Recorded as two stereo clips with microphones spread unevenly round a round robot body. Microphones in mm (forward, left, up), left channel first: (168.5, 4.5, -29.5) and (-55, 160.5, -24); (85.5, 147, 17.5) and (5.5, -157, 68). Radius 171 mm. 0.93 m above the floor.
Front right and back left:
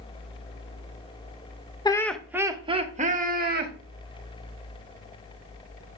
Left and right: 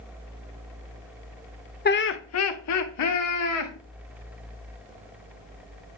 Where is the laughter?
35° left, 0.8 m; by 3.7 s 90° left, 1.6 m.